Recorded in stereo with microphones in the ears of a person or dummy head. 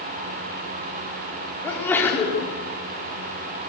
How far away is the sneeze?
About 4.5 m.